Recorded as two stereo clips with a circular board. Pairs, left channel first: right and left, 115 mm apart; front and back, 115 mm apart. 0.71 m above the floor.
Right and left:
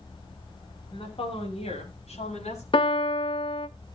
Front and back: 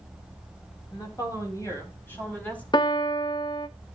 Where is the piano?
50° right, 0.7 m.